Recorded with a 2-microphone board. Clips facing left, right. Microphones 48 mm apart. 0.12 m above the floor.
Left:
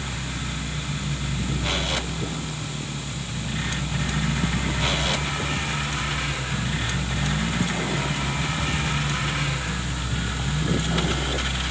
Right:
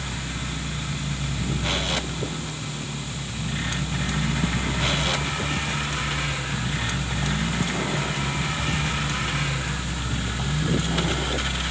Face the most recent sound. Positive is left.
No sound to turn to.